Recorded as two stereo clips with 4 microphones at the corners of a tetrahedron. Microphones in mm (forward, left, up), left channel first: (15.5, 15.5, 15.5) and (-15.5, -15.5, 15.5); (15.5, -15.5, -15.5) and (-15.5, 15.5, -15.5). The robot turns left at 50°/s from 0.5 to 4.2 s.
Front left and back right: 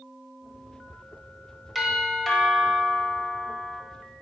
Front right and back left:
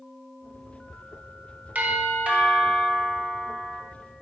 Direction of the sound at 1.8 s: 150° left.